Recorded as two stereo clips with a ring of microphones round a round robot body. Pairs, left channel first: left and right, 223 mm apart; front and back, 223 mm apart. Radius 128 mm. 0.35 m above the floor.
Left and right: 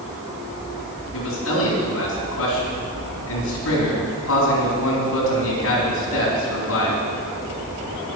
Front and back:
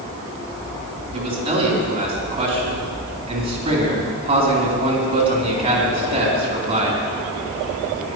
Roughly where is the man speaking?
Behind left.